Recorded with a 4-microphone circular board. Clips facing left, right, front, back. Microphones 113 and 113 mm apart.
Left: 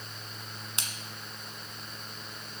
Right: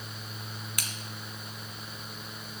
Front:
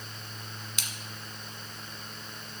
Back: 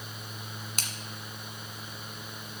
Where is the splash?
150° left, 1.5 m.